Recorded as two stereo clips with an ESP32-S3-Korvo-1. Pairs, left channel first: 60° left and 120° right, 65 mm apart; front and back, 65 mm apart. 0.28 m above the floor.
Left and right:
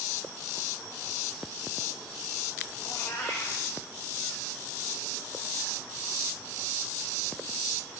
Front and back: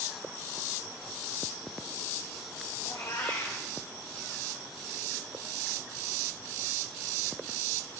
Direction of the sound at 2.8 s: 20° left.